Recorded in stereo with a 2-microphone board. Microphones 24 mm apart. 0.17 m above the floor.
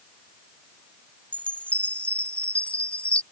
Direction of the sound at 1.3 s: 65° left (ahead or behind).